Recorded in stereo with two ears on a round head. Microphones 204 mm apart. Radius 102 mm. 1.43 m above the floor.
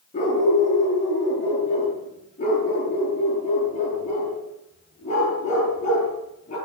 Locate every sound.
0.1 s a dog barking: 35° left (ahead or behind), 9.5 m